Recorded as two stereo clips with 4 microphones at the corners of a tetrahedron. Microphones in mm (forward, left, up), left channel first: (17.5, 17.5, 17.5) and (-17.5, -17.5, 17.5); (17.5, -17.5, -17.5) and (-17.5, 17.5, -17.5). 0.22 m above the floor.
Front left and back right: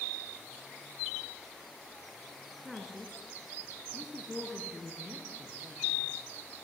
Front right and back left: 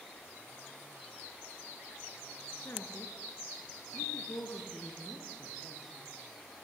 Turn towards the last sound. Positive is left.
turn(degrees=-65)